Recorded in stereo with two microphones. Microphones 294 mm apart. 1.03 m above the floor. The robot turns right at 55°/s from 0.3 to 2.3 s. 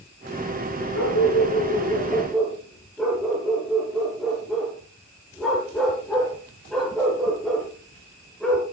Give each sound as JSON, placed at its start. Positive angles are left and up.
{"t": 0.9, "sound": "a dog barking", "side_deg": 75, "distance_m": 10.0}